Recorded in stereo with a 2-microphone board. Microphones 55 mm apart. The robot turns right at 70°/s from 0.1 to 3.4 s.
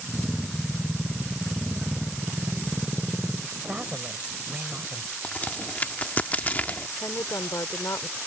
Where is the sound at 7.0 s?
85° left.